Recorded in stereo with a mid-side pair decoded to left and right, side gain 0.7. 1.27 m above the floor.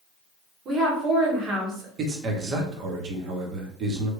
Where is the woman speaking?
40° right, 1.5 m.